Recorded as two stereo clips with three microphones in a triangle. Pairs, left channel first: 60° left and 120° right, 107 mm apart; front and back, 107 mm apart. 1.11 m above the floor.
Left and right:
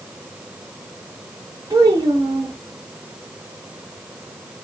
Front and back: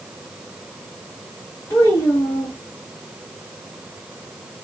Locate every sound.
1.7 s a child speaking: 60° right, 1.0 m